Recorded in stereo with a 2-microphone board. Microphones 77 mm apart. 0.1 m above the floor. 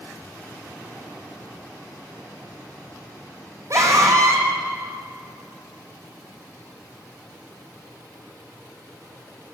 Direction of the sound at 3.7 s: 40° right (ahead or behind).